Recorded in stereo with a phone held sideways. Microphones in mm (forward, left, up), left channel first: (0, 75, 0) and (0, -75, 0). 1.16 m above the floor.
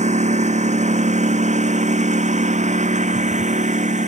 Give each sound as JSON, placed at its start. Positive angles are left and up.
{"t": 0.0, "sound": "a lawn mower", "side_deg": -50}